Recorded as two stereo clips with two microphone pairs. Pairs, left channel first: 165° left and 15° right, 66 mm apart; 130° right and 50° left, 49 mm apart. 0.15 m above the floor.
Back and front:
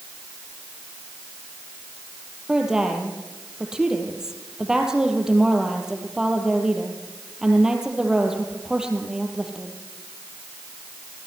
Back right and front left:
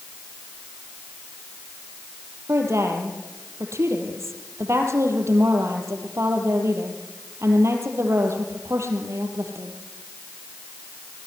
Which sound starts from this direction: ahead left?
A woman speaking, at 2.5 s.